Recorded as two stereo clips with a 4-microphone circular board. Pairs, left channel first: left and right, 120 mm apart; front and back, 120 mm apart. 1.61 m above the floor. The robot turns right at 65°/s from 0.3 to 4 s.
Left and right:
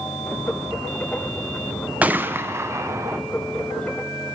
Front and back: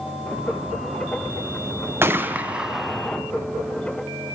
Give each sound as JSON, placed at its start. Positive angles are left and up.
{"t": 2.0, "sound": "a gunshot", "azimuth_deg": -150, "distance_m": 0.5}